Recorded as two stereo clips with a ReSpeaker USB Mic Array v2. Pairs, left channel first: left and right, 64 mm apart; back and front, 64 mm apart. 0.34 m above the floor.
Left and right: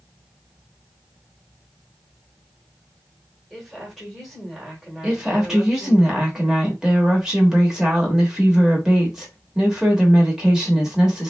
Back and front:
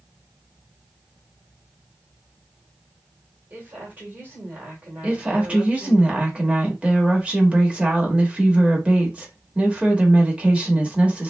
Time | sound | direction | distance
3.5 | a woman speaking | 5° right | 1.4 m
5.0 | a woman speaking | 30° right | 0.9 m